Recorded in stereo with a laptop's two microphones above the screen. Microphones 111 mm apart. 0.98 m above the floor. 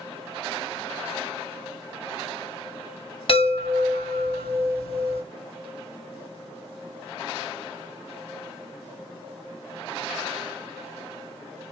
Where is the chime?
60° left (ahead or behind), 2.0 m.